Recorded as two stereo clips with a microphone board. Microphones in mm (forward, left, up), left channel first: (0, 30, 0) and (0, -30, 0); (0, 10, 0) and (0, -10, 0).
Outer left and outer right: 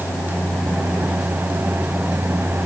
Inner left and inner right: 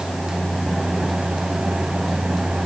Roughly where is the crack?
I don't hear a crack.